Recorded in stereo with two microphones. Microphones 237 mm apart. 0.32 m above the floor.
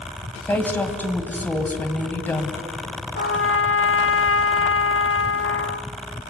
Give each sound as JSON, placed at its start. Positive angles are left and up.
{"t": 0.5, "sound": "a woman speaking", "side_deg": 5, "distance_m": 2.0}
{"t": 3.1, "sound": "a trumpet", "side_deg": 70, "distance_m": 0.6}